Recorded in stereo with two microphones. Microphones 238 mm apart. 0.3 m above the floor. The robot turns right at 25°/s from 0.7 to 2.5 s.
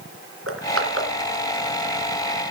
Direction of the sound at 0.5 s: 70° right (ahead or behind).